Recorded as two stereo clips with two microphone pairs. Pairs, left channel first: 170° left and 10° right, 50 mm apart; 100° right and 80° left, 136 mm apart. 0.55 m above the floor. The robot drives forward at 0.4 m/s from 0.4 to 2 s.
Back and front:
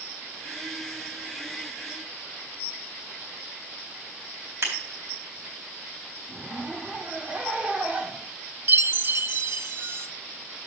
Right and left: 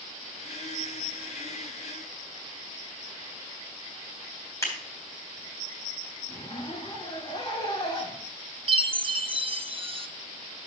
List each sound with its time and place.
4.6 s scissors: 35° right, 4 m
6.3 s a zipper: 70° right, 1.8 m
8.7 s a chime: 25° left, 0.5 m